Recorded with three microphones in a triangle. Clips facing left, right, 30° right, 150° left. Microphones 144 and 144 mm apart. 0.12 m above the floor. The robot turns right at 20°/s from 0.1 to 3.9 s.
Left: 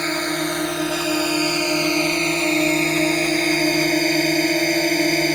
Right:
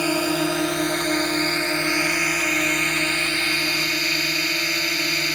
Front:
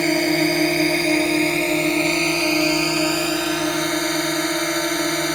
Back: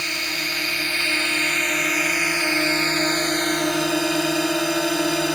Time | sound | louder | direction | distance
0.0 | a drone | right 2 dB, front 15 dB | 10° right | ?